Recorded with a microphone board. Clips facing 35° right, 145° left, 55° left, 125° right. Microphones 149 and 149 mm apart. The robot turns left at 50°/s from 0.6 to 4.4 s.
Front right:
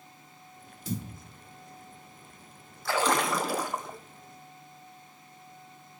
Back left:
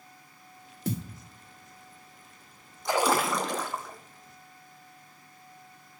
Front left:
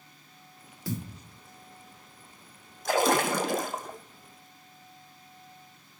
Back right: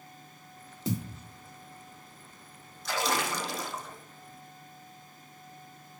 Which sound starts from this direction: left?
A splash, at 2.9 s.